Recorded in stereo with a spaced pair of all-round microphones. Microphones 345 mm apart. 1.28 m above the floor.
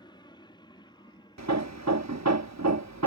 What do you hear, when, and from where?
0.0 s an aircraft: 15° left (ahead or behind); by 3.1 s 10° left (ahead or behind)
1.4 s hammering: 50° right (ahead or behind)